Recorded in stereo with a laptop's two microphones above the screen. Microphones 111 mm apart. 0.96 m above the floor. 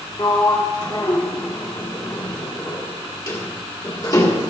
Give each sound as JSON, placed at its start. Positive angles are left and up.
{"t": 0.2, "sound": "a sliding door", "side_deg": 35, "distance_m": 1.7}